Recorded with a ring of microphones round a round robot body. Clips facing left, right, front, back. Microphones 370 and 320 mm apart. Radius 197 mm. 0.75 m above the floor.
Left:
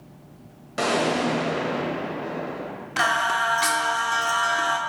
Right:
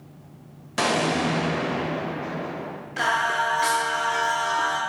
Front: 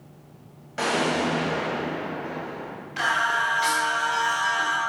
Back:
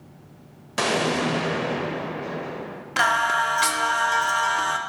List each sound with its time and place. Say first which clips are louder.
0.8 s an explosion: left 1 dB, back 1 dB; 155° right, 0.6 m
3.0 s singing: even, back 5 dB; 155° left, 0.8 m